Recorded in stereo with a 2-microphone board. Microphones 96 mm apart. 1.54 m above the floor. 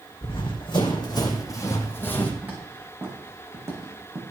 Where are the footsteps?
15° right (ahead or behind), 6 m; by 4.2 s 35° right (ahead or behind), 5 m.